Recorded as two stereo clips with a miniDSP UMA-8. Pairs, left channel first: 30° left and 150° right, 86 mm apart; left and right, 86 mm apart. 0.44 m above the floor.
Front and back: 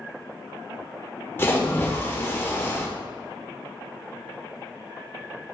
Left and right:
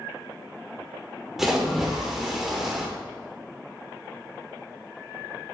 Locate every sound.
1.4 s a splash: 10° right, 1.0 m